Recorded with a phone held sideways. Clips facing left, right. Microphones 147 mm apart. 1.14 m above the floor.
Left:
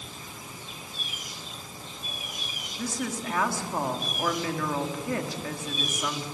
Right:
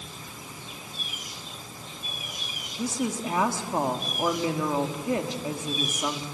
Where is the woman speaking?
20° right (ahead or behind), 2.0 m.